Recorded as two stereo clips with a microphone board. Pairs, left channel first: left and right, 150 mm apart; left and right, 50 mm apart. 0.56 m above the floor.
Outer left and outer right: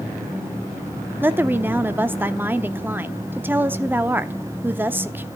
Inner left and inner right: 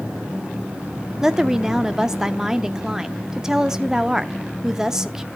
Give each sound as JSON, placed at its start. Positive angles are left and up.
{"t": 1.2, "sound": "a woman speaking", "side_deg": -15, "distance_m": 0.8}